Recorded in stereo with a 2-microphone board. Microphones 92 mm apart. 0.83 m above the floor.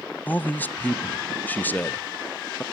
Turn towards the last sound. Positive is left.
turn(degrees=20)  # may be behind; listen again after turning